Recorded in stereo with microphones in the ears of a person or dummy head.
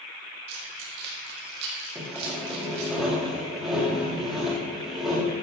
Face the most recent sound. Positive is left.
turn(degrees=-5)  # may be behind; listen again after turning